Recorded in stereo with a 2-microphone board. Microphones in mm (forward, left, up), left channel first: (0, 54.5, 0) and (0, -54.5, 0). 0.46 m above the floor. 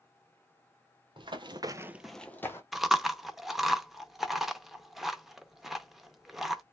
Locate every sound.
1.2 s running footsteps: 50° right (ahead or behind), 0.9 m; by 2.6 s 25° left (ahead or behind), 0.9 m
2.7 s chewing: 5° right (ahead or behind), 0.5 m